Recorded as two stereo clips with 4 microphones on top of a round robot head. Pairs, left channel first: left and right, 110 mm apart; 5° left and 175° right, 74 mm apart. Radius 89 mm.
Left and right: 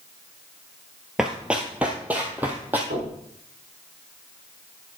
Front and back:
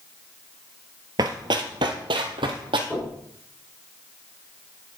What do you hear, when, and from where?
1.2 s running footsteps: 175° right, 0.8 m; by 2.8 s 165° right, 1.6 m
2.9 s knocking: 80° right, 4.5 m